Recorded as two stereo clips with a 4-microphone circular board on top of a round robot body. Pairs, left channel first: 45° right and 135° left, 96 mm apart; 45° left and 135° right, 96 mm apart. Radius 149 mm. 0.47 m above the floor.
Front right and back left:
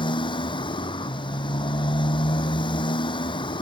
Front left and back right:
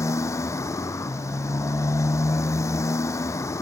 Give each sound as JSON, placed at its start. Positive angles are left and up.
{"t": 0.0, "sound": "a motorcycle", "azimuth_deg": -15}